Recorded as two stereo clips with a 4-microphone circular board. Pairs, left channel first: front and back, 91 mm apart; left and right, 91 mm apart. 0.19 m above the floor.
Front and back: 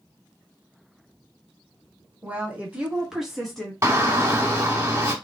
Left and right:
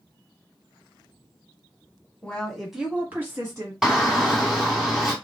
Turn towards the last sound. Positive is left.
turn(degrees=-170)